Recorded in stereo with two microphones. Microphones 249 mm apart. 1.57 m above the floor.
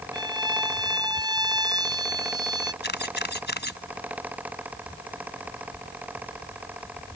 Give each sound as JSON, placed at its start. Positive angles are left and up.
{"t": 0.1, "sound": "a violin", "side_deg": -15}
{"t": 2.8, "sound": "a camera shutter", "side_deg": 45}